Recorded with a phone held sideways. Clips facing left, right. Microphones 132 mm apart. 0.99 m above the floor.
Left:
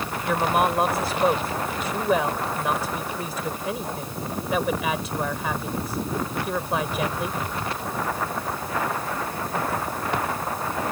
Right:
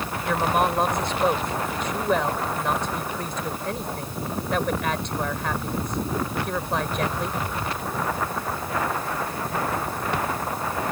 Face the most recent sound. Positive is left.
turn(degrees=5)  # may be behind; listen again after turning